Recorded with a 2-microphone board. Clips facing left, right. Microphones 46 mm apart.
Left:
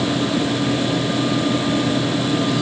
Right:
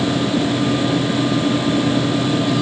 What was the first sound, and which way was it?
Only background noise.